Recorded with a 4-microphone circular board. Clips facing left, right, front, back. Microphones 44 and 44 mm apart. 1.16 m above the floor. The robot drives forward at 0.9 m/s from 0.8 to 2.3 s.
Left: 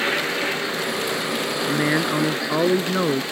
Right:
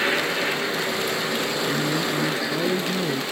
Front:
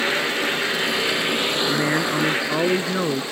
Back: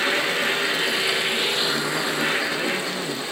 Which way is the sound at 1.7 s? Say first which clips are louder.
Left 7 dB, front 3 dB; 50° left.